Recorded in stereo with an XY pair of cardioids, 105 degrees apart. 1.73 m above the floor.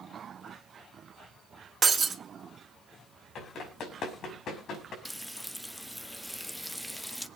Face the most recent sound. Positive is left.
turn(degrees=0)